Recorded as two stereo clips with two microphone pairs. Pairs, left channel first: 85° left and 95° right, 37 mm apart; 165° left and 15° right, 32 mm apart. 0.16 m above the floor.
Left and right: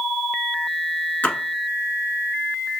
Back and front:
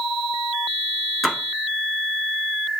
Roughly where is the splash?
Left.